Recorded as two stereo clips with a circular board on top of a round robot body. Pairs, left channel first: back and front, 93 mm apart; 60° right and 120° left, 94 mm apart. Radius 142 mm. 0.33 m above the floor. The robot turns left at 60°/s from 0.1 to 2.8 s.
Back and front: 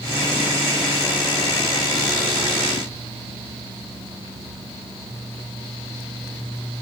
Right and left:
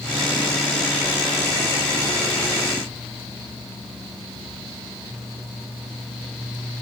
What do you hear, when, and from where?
Only background noise.